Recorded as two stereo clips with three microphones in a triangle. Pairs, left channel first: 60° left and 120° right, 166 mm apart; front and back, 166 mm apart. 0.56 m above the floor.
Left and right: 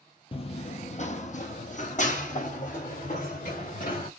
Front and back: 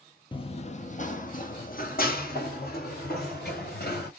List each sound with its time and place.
0.3 s running footsteps: 35° left, 0.6 m; by 4.1 s 20° left, 2.5 m